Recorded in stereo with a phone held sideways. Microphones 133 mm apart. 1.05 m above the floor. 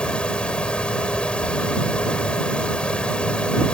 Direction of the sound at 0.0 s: 10° left (ahead or behind).